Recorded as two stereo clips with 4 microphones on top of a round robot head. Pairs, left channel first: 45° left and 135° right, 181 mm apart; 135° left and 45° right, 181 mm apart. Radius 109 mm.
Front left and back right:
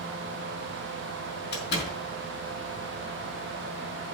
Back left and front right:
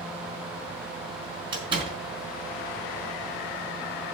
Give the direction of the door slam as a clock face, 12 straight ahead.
11 o'clock.